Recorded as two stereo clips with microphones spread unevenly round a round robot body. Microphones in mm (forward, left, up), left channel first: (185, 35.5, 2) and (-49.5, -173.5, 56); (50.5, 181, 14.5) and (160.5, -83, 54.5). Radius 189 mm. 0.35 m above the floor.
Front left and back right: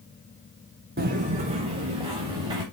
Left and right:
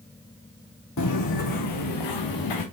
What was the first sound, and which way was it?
Footsteps, 160° left.